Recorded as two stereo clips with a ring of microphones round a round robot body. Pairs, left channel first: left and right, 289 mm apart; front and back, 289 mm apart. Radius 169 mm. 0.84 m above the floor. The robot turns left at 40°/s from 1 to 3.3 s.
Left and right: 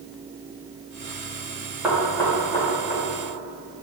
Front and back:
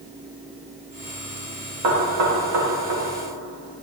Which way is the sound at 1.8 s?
175° right.